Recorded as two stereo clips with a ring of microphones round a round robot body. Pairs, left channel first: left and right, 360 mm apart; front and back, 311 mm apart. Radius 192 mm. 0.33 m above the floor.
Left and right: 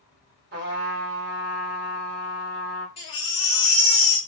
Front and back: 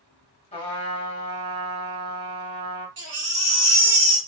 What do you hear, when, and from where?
0.5 s a trumpet: 55° right, 1.6 m
3.0 s a baby crying: 165° left, 2.5 m